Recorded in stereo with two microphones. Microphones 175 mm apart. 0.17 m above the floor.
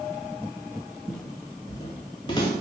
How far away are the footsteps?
About 0.7 m.